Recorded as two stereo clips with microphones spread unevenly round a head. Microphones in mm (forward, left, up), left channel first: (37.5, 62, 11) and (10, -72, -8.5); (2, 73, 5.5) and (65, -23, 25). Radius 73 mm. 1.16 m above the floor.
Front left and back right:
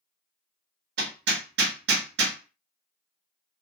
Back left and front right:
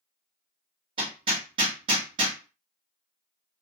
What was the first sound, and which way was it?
Hammering, 110° right.